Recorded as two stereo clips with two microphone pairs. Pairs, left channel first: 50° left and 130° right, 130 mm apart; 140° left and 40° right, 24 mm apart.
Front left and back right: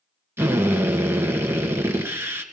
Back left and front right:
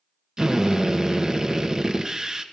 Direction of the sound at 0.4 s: 80° right.